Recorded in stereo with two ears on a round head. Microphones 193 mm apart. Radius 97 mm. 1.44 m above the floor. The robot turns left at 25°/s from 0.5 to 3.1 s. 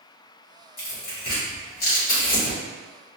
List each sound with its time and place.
0.8 s tearing paper: 45° left (ahead or behind), 1.6 m; by 2.6 s 40° left (ahead or behind), 1.6 m